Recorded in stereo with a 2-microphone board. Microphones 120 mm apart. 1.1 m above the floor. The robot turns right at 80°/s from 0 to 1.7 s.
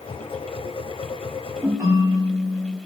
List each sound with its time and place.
1.6 s a ringtone: 20° right (ahead or behind), 2 m; by 2.8 s 30° right (ahead or behind), 2 m